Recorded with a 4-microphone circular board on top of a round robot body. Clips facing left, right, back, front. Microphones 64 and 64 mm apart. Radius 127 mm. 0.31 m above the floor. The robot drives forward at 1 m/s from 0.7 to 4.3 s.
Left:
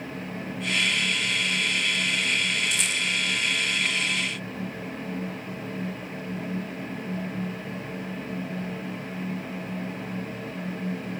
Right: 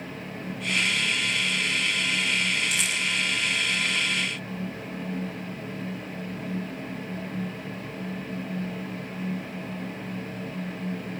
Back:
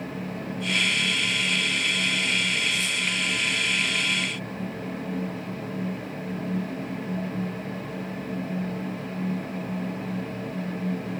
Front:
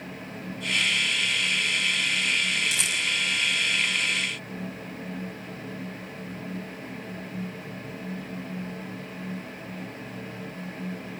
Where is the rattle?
10° right, 6 m.